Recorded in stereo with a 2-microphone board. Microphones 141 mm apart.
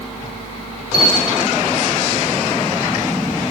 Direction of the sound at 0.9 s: 40° right (ahead or behind).